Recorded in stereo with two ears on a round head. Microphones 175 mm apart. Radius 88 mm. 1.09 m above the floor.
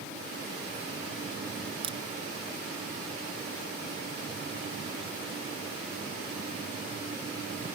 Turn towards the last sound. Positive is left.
turn(degrees=-25)  # may be behind; listen again after turning